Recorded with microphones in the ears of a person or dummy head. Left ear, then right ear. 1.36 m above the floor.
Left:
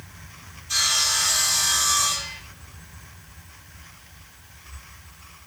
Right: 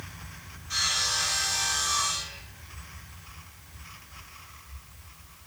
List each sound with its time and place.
0.7 s sawing: 20° left (ahead or behind), 1.2 m